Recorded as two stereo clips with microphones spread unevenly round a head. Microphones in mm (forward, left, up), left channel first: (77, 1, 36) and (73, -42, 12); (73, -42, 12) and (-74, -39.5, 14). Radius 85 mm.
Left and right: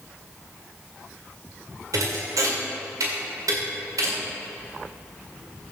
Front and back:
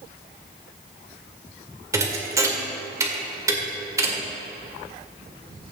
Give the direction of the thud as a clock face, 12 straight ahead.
4 o'clock.